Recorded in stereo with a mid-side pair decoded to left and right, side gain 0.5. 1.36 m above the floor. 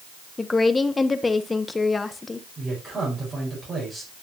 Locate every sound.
0.4 s a woman speaking: 25° left, 1.3 m
2.6 s a man speaking: 30° right, 5.5 m